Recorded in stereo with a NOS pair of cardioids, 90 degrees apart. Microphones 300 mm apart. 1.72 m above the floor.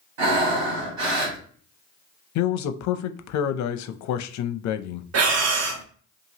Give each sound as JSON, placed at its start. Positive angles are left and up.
{"t": 0.2, "sound": "breathing", "azimuth_deg": -70, "distance_m": 1.7}
{"t": 2.4, "sound": "a man speaking", "azimuth_deg": 65, "distance_m": 0.5}
{"t": 5.1, "sound": "breathing", "azimuth_deg": -55, "distance_m": 0.8}